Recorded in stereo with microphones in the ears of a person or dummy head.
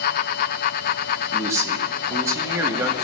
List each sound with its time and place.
0.0 s a fan: 50° left (ahead or behind), 0.9 m
1.3 s a man speaking: 10° right (ahead or behind), 2.5 m